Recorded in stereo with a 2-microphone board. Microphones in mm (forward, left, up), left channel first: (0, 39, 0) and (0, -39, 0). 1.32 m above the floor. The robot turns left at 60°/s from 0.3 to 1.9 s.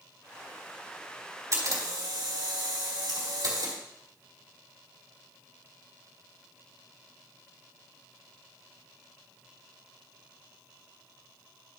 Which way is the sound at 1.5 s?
45° right (ahead or behind).